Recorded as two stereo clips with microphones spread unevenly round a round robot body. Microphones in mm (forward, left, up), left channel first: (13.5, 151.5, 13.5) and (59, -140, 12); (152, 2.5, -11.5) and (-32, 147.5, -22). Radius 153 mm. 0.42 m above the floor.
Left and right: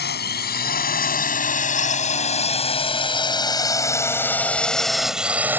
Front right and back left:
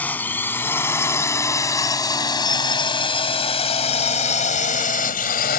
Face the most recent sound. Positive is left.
turn(degrees=0)